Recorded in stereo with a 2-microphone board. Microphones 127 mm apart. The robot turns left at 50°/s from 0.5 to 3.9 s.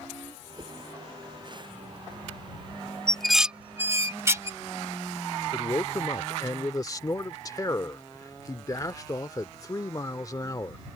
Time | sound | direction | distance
0.6 | a whoosh | 40° right (ahead or behind) | ?
3.1 | dishes clattering | 10° left (ahead or behind) | ?
5.5 | a man speaking | 25° left (ahead or behind) | ?